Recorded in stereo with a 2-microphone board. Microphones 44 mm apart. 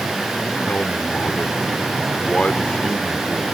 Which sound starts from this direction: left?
A man speaking, at 0.7 s.